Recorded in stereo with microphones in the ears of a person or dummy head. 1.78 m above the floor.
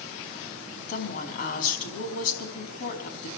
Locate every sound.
0.9 s a woman speaking: 50° left (ahead or behind), 5 m